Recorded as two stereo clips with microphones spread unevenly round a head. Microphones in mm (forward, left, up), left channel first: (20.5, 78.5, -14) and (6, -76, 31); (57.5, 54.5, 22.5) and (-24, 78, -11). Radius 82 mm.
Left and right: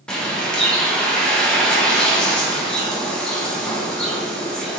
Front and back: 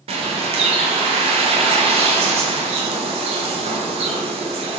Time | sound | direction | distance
0.1 | a bird | 175° right | 1.2 m